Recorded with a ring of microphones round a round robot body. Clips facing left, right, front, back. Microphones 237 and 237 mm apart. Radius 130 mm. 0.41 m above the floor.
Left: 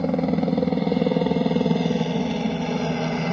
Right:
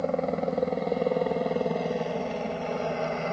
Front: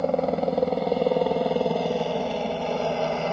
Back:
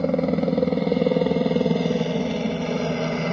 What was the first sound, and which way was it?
A helicopter, 125° left.